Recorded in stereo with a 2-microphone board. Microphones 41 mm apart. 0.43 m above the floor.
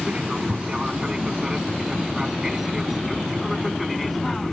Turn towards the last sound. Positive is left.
turn(degrees=5)  # may be behind; listen again after turning